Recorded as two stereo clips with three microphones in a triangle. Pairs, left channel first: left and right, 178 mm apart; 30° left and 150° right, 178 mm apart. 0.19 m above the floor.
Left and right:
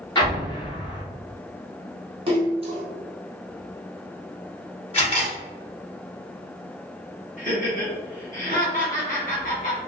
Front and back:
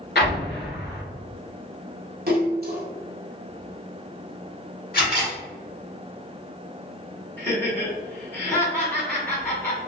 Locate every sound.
0.1 s an explosion: 30° left, 1.0 m
2.3 s a splash: 145° right, 0.8 m
4.9 s a camera shutter: 40° left, 1.5 m
7.4 s laughter: 100° left, 1.8 m